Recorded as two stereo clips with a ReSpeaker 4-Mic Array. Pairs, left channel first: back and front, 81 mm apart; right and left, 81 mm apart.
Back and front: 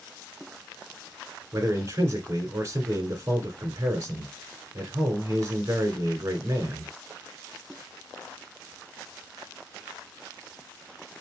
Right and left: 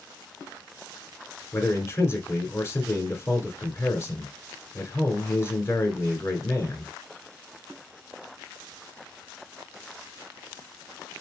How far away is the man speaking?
About 1.9 m.